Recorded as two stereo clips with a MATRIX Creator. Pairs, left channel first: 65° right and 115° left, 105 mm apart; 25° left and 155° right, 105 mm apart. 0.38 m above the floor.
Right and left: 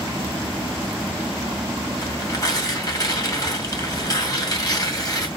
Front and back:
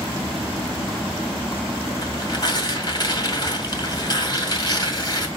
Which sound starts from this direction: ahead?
Tearing paper, at 2.0 s.